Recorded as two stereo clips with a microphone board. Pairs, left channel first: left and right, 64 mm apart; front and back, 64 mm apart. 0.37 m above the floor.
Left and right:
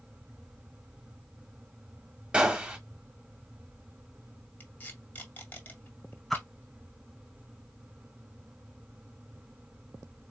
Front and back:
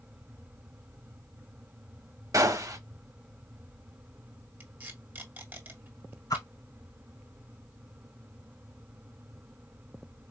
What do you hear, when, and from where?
2.3 s a gunshot: 160° right, 1.1 m
4.6 s tape being pulled: 135° left, 1.7 m
6.3 s a whoosh: 5° left, 1.1 m